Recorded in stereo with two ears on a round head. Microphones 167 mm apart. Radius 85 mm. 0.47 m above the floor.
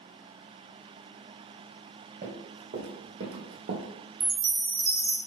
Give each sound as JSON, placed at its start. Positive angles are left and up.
{"t": 2.2, "sound": "running footsteps", "side_deg": -45, "distance_m": 1.6}
{"t": 4.2, "sound": "a chime", "side_deg": -30, "distance_m": 0.9}